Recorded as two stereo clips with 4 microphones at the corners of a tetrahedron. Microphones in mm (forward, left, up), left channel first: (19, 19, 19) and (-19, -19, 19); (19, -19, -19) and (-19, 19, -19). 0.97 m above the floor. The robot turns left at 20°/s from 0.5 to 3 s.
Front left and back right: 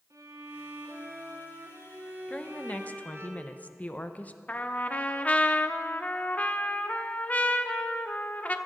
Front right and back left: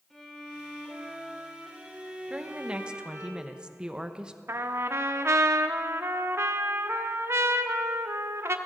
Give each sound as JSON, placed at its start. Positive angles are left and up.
{"t": 0.1, "sound": "a violin", "azimuth_deg": -130, "distance_m": 3.5}
{"t": 2.3, "sound": "a woman speaking", "azimuth_deg": 90, "distance_m": 0.8}
{"t": 4.5, "sound": "a trumpet", "azimuth_deg": 105, "distance_m": 0.7}